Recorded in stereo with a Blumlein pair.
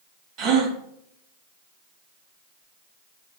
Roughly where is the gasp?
Ahead right.